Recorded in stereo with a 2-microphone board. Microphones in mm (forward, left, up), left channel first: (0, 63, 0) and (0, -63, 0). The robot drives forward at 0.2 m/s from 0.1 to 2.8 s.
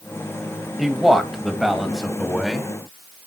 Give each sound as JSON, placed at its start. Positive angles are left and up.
{"t": 0.8, "sound": "a man speaking", "side_deg": 0, "distance_m": 1.5}